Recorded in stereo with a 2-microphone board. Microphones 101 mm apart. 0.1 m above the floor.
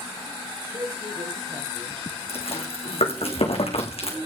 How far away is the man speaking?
About 4.5 m.